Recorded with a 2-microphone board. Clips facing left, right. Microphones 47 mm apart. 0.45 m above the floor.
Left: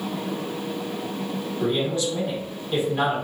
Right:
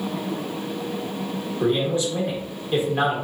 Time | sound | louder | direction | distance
1.6 | a man speaking | right 2 dB | 25° right (ahead or behind) | 0.9 m